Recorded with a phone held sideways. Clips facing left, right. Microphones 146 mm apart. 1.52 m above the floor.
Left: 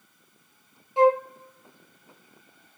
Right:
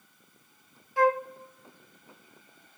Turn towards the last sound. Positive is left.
turn(degrees=25)  # may be behind; listen again after turning